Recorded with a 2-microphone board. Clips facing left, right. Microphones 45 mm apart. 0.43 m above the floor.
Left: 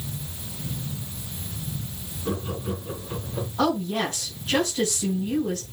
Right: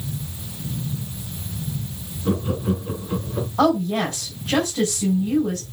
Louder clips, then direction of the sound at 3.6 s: Right 5 dB; 45° right (ahead or behind).